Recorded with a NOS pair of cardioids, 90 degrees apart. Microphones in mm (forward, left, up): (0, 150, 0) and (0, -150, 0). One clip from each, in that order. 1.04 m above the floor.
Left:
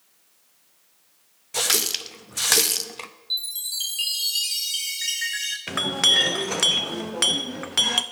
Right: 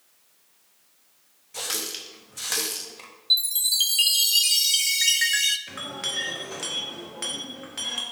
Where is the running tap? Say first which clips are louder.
Left 8 dB; 45° left, 0.7 m.